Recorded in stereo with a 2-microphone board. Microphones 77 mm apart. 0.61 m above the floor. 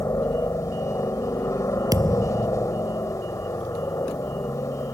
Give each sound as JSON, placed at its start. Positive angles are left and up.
{"t": 0.0, "sound": "a helicopter", "side_deg": 40}
{"t": 1.9, "sound": "a thud", "side_deg": -50}